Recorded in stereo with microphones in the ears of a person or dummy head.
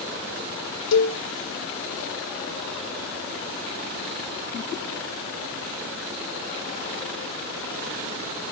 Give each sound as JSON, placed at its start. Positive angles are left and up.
{"t": 0.9, "sound": "a cowbell", "side_deg": 65, "distance_m": 1.1}